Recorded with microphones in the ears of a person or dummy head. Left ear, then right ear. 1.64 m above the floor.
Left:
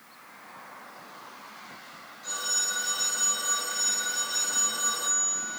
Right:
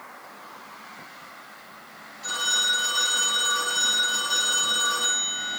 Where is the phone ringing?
20° right (ahead or behind), 8.5 m.